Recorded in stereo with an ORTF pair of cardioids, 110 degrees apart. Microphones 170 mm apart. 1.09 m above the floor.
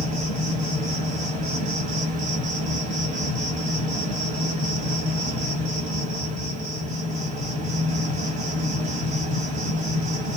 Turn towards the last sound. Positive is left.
turn(degrees=-50)